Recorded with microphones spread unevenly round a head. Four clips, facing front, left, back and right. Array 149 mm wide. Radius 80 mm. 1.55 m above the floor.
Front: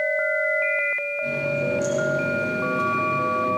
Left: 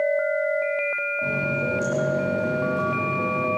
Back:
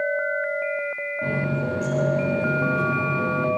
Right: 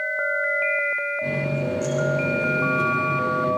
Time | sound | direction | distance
1.2 | a running tap | 170° left | 8.5 m